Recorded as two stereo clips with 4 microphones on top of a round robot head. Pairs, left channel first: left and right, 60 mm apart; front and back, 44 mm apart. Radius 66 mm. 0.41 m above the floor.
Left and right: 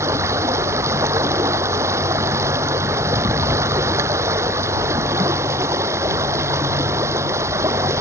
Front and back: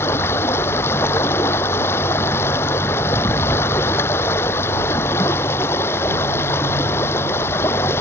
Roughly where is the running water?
Ahead right.